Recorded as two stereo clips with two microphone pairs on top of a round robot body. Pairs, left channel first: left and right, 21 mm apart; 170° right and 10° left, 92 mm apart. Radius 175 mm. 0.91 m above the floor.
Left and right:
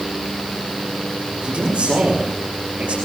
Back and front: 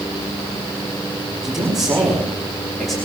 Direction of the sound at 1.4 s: 80° right.